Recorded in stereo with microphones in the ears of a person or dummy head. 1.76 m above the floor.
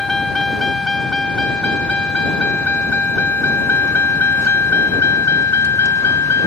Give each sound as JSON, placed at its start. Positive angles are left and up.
{"t": 0.0, "sound": "a vehicle", "side_deg": 5}